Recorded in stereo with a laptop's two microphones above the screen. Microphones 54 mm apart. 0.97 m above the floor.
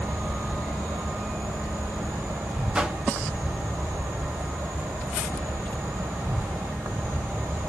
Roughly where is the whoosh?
Centre.